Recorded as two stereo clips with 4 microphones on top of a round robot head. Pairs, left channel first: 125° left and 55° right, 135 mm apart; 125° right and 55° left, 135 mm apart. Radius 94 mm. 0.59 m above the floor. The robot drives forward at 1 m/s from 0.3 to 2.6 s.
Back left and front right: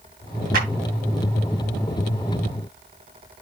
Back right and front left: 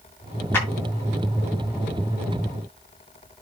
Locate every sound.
0.5 s a clap: 55° right, 6 m